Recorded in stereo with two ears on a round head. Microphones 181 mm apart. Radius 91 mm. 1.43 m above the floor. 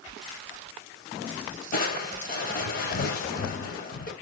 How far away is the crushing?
About 1.0 m.